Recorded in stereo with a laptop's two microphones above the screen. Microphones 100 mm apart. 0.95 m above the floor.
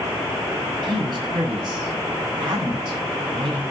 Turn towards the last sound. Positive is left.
turn(degrees=-40)  # may be behind; listen again after turning